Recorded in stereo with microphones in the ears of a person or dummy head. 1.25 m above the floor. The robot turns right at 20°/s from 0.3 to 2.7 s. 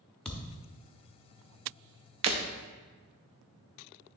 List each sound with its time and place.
0.2 s a thud: centre (ahead or behind), 0.8 m
2.2 s breaking glass: 40° right (ahead or behind), 0.7 m